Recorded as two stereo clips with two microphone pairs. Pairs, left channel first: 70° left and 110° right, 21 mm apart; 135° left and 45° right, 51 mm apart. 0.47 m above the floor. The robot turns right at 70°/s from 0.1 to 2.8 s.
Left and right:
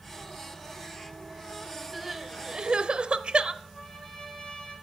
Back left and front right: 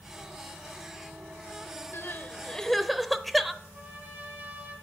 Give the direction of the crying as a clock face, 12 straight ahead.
6 o'clock.